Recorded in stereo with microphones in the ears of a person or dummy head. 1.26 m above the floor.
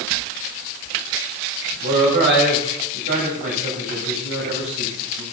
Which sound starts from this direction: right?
A man speaking, at 1.8 s.